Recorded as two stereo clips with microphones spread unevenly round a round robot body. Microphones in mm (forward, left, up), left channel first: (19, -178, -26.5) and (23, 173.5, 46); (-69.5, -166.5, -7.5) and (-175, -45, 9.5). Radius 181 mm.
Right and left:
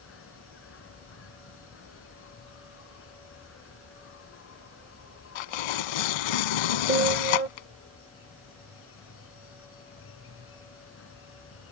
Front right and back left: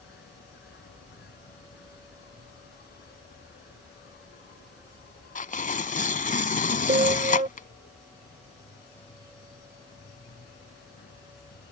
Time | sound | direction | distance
0.0 | an insect | 35° right | ?
5.3 | tearing paper | 90° right | ?
6.9 | a piano | 155° left | ?